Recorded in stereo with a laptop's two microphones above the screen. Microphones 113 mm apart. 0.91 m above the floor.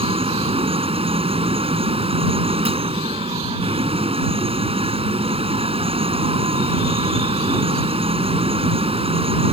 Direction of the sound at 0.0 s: 60° right (ahead or behind).